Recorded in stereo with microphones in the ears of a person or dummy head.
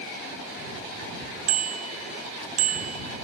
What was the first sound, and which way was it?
A bicycle bell, 85° right.